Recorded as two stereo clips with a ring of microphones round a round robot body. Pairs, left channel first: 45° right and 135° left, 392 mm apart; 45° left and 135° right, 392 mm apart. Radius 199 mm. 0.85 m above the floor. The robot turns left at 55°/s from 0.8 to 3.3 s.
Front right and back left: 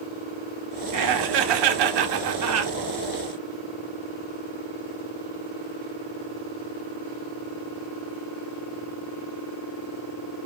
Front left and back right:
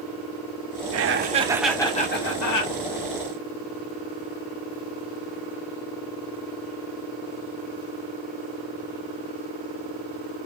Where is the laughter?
175° left, 1.0 m; by 2.7 s 75° left, 1.0 m.